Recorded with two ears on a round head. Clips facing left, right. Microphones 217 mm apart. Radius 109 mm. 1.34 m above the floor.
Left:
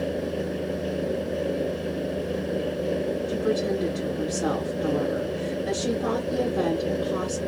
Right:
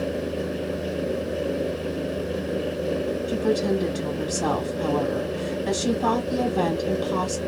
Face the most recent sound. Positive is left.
turn(degrees=-65)  # may be behind; listen again after turning